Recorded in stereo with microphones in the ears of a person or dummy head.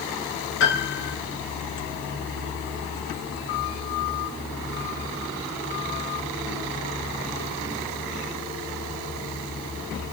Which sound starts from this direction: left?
A piano, at 0.6 s.